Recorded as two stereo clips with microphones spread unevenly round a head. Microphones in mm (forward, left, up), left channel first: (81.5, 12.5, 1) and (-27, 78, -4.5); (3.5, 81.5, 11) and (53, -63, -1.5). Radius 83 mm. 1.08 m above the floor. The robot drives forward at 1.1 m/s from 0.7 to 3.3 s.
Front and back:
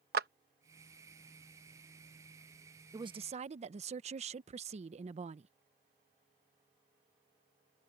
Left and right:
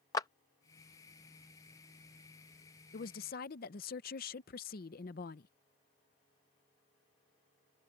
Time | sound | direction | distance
0.1 | a clap | straight behind | ?
2.9 | a woman speaking | 95° left | ?